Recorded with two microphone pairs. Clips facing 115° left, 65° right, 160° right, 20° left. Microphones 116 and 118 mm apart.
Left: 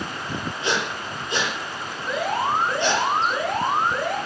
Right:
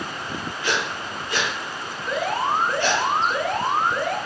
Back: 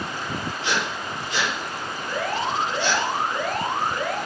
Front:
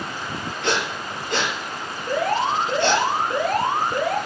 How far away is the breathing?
About 5 m.